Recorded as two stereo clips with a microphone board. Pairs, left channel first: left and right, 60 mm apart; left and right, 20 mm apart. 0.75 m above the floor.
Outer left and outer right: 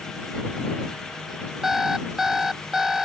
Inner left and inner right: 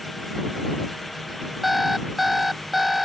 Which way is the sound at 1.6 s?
10° right (ahead or behind).